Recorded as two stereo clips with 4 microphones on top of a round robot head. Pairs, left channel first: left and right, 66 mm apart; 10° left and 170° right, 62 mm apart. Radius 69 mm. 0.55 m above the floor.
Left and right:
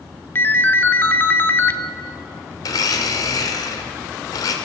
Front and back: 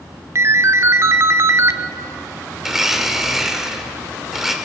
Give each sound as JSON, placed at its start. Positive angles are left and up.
{"t": 0.3, "sound": "a ringtone", "azimuth_deg": 145, "distance_m": 1.1}
{"t": 2.6, "sound": "a blender", "azimuth_deg": 105, "distance_m": 2.5}